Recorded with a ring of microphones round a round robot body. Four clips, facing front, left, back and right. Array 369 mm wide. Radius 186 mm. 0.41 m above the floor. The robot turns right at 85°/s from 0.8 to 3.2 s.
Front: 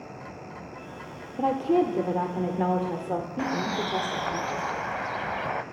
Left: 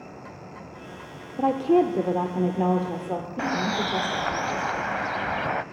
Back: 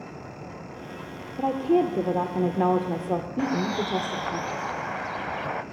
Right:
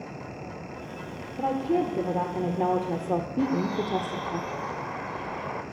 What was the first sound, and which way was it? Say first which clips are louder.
A woman speaking: left 5 dB, back 1 dB; 75° left.